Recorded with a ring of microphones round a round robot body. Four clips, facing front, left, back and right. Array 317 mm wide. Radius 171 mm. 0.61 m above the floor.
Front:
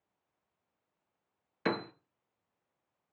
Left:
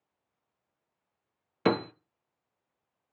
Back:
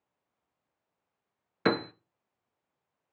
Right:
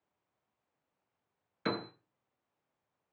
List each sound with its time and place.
1.6 s a piano: 120° left, 0.7 m